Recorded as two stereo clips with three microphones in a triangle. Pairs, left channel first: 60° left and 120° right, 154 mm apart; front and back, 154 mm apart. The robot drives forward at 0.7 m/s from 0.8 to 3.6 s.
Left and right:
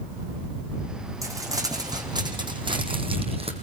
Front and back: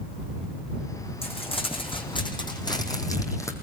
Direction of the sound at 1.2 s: 50° right.